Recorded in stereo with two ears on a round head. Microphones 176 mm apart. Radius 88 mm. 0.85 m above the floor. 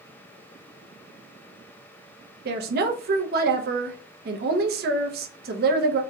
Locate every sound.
2.5 s a woman speaking: 50° right (ahead or behind), 0.6 m